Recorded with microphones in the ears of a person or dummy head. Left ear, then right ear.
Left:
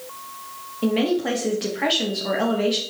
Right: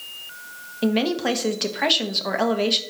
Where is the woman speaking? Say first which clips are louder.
Even; 30° right (ahead or behind), 1.1 m.